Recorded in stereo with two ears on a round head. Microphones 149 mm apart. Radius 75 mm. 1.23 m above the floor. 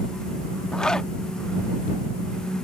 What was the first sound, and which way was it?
A zipper, 5° left (ahead or behind).